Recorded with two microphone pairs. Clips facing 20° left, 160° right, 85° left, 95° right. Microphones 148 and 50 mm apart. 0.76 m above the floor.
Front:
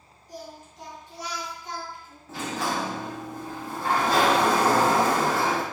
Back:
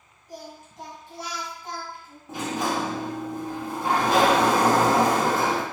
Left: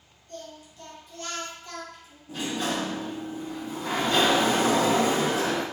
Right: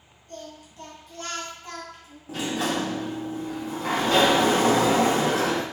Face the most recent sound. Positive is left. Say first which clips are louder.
# back 2 dB, right 2 dB
turn(degrees=-90)